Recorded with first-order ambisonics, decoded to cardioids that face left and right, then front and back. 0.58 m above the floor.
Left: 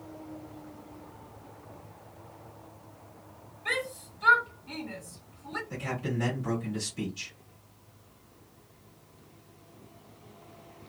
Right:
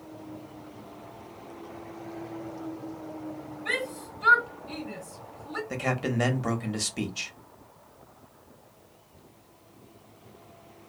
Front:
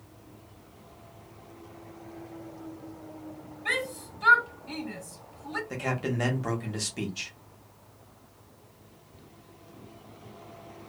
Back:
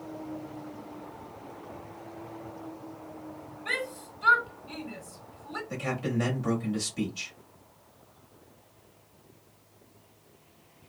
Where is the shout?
20° left, 2 m.